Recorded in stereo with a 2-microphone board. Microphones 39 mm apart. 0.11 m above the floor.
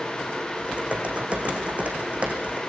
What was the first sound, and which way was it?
Typing on a keyboard, 35° right (ahead or behind).